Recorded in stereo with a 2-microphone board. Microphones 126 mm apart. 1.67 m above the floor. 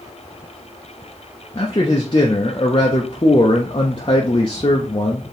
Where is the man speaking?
35° left (ahead or behind), 0.6 m.